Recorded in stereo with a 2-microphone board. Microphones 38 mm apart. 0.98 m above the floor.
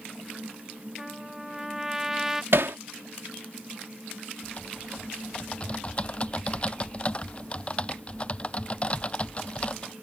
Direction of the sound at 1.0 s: 15° right (ahead or behind).